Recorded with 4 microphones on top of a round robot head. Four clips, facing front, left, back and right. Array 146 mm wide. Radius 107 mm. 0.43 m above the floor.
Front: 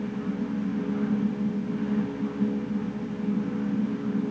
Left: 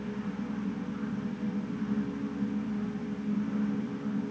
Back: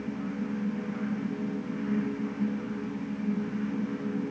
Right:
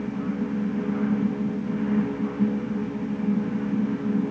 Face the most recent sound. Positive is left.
No sound to turn to.